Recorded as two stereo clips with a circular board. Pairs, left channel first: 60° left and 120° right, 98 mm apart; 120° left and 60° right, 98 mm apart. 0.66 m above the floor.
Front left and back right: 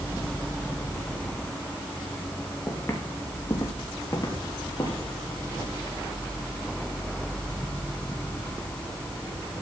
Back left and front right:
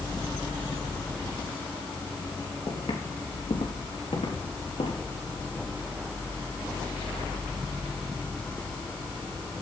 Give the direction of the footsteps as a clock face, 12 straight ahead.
8 o'clock.